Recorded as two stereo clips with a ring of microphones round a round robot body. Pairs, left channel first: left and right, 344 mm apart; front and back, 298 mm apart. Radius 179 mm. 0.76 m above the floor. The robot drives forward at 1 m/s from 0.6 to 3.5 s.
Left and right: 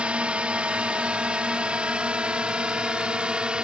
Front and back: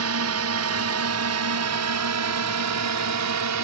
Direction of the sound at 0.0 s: 175° right.